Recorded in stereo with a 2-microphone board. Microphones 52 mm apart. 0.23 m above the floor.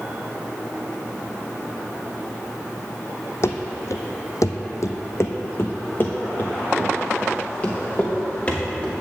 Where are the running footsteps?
55° left (ahead or behind), 0.8 m; by 8.9 s 25° left (ahead or behind), 3 m.